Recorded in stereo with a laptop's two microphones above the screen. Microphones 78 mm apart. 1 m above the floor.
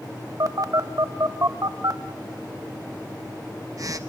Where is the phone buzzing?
50° right (ahead or behind), 1.2 m.